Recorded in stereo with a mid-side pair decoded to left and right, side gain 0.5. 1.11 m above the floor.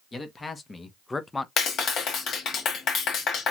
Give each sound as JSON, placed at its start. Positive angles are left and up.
{"t": 0.1, "sound": "a man speaking", "azimuth_deg": 30, "distance_m": 1.2}
{"t": 1.6, "sound": "a clap", "azimuth_deg": 60, "distance_m": 1.3}